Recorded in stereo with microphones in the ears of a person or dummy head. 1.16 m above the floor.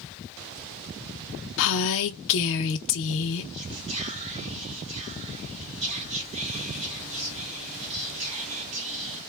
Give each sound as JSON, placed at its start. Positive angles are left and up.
{"t": 1.6, "sound": "a woman speaking", "side_deg": 65, "distance_m": 0.6}
{"t": 3.5, "sound": "whispering", "side_deg": -35, "distance_m": 0.9}